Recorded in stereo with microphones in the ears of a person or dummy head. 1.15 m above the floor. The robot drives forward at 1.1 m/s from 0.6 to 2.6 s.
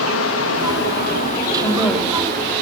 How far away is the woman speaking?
About 2.5 m.